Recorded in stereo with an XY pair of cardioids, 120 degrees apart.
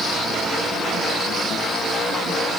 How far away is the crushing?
I don't hear crushing.